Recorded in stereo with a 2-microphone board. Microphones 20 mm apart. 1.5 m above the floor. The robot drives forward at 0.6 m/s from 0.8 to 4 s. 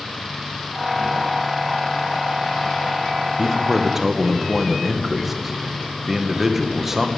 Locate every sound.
3.4 s a man speaking: 25° right (ahead or behind), 0.8 m; by 7.1 s 15° right (ahead or behind), 1.1 m